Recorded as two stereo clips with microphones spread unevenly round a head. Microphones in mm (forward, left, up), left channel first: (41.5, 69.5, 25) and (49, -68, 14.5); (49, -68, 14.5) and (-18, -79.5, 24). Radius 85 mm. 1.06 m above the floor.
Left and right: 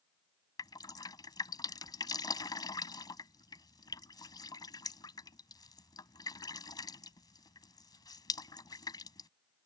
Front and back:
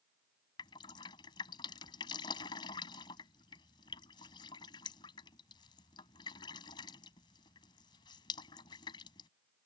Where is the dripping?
35° left.